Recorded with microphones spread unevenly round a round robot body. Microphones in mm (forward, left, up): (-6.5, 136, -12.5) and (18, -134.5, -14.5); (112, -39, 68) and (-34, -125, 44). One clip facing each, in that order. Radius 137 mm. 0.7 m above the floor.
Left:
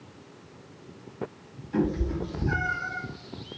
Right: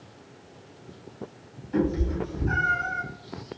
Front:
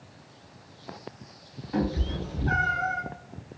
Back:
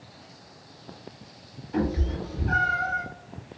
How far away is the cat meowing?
About 1.7 m.